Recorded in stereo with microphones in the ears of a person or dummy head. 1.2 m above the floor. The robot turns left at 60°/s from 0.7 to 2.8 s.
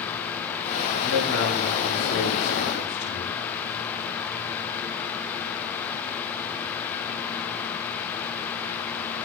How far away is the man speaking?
About 7 m.